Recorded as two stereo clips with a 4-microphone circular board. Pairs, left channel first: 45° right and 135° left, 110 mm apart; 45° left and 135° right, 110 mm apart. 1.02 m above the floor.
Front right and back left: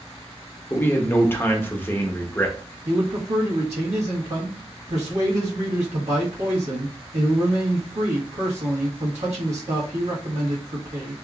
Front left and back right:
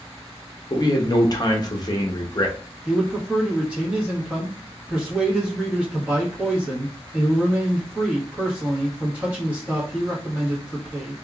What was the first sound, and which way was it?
A man speaking, 15° left.